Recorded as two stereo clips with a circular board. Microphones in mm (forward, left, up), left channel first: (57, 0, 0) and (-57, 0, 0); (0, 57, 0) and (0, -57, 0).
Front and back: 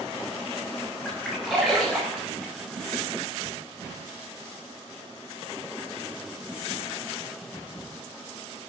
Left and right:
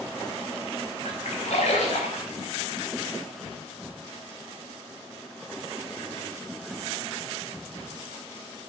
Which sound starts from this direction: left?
A splash, at 1.1 s.